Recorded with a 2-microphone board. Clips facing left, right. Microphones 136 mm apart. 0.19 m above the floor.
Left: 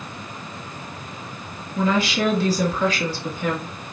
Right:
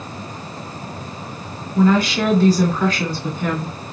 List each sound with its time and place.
1.8 s a woman speaking: 40° right (ahead or behind), 2 m